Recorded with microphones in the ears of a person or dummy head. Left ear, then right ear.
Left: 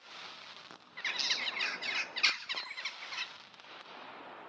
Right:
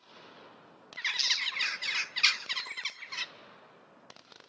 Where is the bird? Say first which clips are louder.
Right 4 dB; 10° right (ahead or behind), 0.6 m.